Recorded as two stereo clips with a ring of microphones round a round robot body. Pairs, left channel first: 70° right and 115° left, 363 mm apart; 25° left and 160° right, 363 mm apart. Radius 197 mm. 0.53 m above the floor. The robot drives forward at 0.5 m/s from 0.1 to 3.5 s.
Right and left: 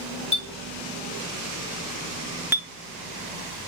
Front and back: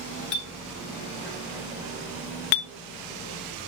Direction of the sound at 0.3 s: 10° left.